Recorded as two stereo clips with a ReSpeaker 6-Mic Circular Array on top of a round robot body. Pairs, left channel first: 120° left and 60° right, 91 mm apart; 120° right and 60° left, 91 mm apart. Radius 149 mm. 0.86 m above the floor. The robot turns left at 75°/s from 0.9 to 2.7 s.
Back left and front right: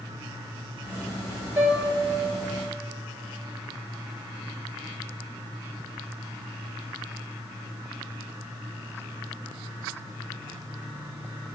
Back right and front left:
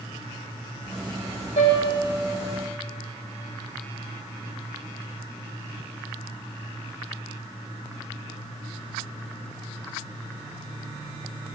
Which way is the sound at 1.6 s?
135° right.